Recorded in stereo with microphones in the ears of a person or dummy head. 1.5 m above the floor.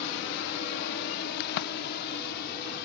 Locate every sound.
0.0 s a drone: 60° left (ahead or behind)
1.4 s a crack: 55° left (ahead or behind)